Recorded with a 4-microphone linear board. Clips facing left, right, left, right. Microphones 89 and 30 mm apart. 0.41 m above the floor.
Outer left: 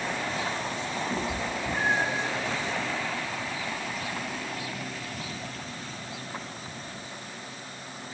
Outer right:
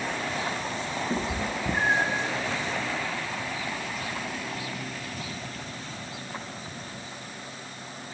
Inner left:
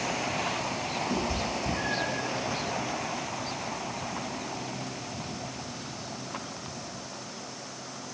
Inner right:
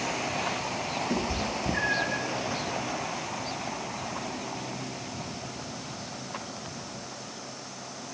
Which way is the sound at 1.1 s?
25° right (ahead or behind).